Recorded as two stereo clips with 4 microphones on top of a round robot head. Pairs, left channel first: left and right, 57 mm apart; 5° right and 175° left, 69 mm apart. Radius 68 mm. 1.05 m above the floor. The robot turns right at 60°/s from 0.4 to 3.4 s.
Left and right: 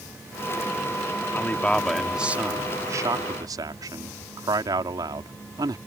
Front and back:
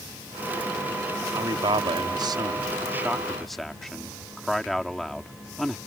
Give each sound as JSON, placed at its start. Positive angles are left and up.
{"t": 1.3, "sound": "a man speaking", "azimuth_deg": 145}